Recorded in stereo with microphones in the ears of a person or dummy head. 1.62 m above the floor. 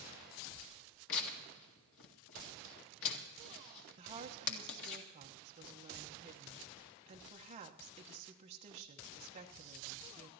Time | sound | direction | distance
1.1 | tearing paper | 75° left (ahead or behind) | 1.9 m
4.0 | a woman speaking | 35° right (ahead or behind) | 1.0 m